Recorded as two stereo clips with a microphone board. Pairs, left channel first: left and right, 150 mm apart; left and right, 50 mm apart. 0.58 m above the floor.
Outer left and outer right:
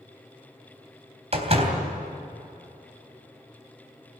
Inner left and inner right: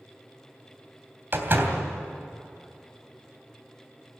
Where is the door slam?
45° right (ahead or behind), 3 m.